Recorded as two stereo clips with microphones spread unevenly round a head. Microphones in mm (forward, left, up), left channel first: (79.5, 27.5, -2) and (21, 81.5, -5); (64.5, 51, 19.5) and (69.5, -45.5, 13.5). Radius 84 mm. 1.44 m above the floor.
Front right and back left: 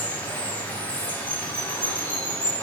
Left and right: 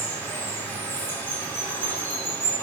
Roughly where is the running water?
Ahead left.